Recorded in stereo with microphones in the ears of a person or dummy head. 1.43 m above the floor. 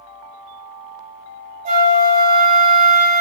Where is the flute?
35° right (ahead or behind), 0.5 m.